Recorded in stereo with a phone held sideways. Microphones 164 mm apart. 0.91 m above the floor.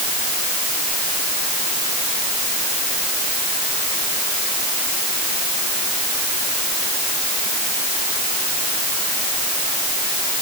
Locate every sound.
Only background noise.